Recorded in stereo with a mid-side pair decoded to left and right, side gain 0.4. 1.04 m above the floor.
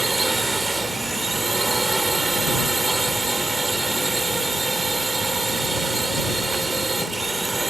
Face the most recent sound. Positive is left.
turn(degrees=-25)